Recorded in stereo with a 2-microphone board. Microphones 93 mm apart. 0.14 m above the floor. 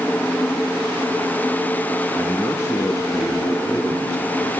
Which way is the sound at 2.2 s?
30° left (ahead or behind).